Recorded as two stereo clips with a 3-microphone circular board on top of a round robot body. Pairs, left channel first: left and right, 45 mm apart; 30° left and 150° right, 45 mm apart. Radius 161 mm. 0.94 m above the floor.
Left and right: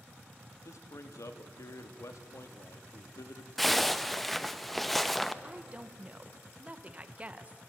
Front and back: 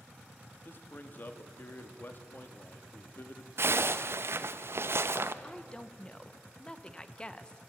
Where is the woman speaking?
35° right, 1.4 m.